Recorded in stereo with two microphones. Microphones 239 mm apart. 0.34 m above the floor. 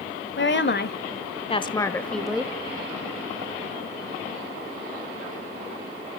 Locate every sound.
0.4 s a woman speaking: 55° left (ahead or behind), 1.3 m; by 2.5 s 5° right (ahead or behind), 1.3 m